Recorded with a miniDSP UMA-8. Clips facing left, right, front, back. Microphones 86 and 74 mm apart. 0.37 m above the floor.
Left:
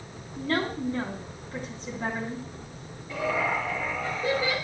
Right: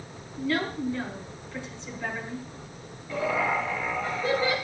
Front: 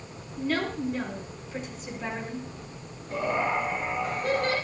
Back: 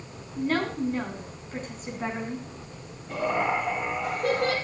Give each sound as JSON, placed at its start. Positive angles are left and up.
{"t": 0.4, "sound": "a woman speaking", "azimuth_deg": 130, "distance_m": 4.0}
{"t": 3.1, "sound": "laughter", "azimuth_deg": 165, "distance_m": 5.5}